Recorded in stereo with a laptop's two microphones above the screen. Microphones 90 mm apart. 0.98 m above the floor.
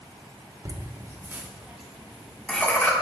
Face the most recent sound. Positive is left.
turn(degrees=20)  # may be behind; listen again after turning